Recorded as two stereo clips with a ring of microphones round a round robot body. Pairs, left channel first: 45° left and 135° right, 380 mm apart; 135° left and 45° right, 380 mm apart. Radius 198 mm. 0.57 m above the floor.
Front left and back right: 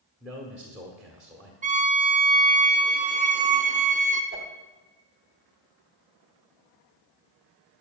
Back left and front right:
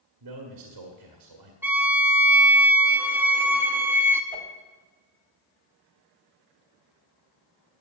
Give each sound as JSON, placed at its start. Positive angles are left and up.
{"t": 0.2, "sound": "a man speaking", "azimuth_deg": -50, "distance_m": 1.5}
{"t": 1.6, "sound": "a violin", "azimuth_deg": -120, "distance_m": 0.9}
{"t": 4.3, "sound": "a whoosh", "azimuth_deg": -60, "distance_m": 1.4}